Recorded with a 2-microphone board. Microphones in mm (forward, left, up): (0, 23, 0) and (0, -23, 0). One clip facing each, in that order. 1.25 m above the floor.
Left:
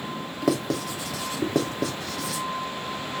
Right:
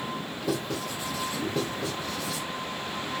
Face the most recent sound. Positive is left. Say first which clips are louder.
# left 6 dB
turn(degrees=60)  # may be behind; listen again after turning